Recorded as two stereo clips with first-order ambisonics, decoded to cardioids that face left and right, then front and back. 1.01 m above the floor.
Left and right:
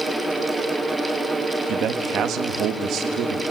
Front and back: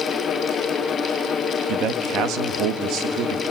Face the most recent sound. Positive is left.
turn(degrees=-140)